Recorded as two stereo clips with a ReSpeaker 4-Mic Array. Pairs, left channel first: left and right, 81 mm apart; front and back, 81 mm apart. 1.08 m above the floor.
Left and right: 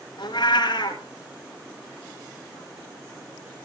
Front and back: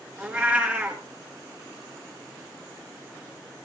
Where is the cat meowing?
110° left, 3.5 m.